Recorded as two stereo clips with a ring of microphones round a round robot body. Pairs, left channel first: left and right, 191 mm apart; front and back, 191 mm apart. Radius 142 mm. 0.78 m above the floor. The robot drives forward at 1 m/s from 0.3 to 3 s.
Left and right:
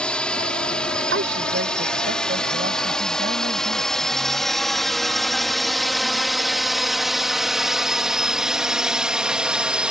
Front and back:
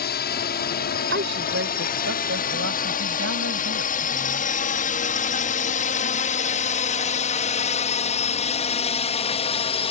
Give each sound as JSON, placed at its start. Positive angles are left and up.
{"t": 0.0, "sound": "a drone", "azimuth_deg": 5}
{"t": 1.1, "sound": "a woman speaking", "azimuth_deg": -130}